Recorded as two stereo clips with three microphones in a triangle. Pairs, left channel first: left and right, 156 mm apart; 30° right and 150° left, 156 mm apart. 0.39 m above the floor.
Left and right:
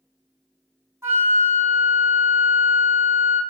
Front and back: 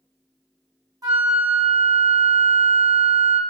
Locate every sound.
1.0 s a flute: 155° right, 0.9 m